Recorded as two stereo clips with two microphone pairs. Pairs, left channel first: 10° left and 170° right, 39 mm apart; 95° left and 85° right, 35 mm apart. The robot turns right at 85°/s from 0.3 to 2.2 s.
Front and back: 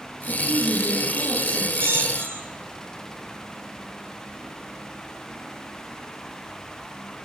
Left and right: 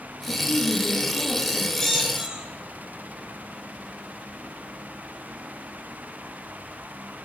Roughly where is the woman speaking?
Left.